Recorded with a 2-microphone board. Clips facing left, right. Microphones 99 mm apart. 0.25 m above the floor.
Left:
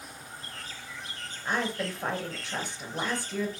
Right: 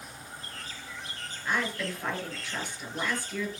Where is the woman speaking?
30° left (ahead or behind), 5 m.